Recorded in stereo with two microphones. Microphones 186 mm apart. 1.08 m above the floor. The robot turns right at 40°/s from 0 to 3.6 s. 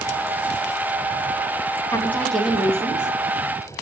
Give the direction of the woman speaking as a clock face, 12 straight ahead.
7 o'clock.